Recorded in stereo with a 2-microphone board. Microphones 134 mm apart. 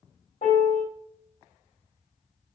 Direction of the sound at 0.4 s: 65° left (ahead or behind).